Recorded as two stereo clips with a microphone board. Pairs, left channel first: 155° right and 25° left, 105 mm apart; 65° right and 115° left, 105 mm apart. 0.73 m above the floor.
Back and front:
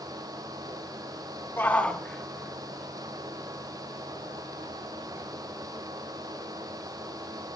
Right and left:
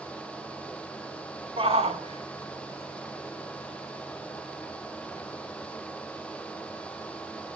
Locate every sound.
1.6 s a shout: 135° left, 1.9 m; by 5.2 s 90° left, 7 m